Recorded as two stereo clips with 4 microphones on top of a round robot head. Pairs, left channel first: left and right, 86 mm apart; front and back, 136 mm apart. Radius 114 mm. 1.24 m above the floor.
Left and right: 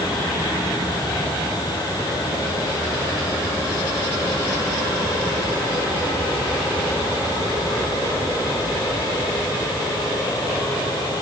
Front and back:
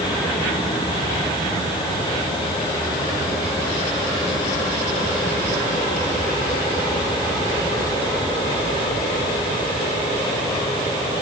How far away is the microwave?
No microwave in this recording.